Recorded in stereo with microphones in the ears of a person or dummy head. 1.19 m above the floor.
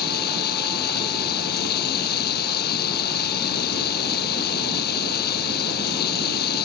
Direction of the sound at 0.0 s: 55° left (ahead or behind).